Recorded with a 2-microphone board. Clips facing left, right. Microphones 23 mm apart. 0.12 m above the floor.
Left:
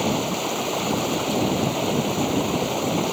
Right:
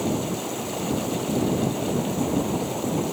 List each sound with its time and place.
0.0 s running water: 45° left (ahead or behind)